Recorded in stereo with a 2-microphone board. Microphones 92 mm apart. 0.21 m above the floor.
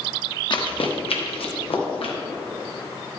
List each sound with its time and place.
0.5 s running footsteps: 55° left (ahead or behind), 1.7 m; by 2.1 s 75° left (ahead or behind), 3.5 m